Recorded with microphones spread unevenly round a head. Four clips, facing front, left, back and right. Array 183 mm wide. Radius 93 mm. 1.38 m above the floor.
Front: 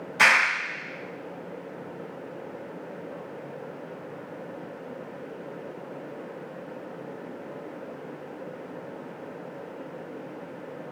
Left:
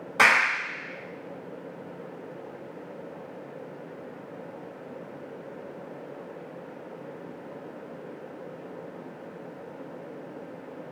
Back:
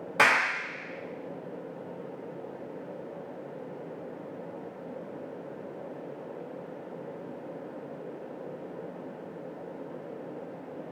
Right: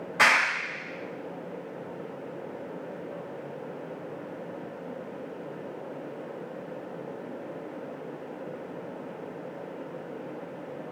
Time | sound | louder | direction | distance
0.2 | a clap | left 2 dB, front 2 dB | 155° left | 3 m